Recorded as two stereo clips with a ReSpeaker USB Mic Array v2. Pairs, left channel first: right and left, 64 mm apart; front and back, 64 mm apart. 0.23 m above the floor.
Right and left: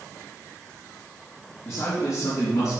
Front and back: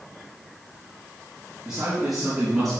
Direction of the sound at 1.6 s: 105° right.